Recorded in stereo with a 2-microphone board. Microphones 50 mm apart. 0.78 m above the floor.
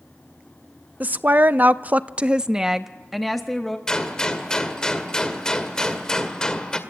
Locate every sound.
1.0 s a woman speaking: 35° right (ahead or behind), 0.7 m; by 3.8 s 5° left (ahead or behind), 1.1 m
3.9 s a gunshot: 15° left (ahead or behind), 1.9 m